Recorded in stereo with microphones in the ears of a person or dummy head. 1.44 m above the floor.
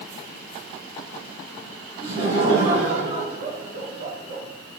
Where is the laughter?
30° right (ahead or behind), 4 m.